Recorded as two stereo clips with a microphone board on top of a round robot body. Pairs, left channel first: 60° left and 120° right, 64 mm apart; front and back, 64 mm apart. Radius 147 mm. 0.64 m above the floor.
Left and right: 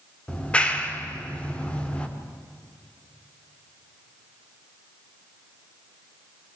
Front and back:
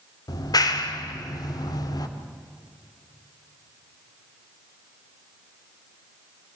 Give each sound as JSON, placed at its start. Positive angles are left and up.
{"t": 0.3, "sound": "a clap", "azimuth_deg": -15, "distance_m": 1.5}